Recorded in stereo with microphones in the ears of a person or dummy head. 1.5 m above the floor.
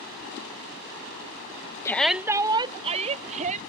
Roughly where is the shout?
Centre.